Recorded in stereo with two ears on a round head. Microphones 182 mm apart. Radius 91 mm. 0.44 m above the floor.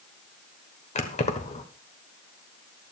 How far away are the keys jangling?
About 1.3 m.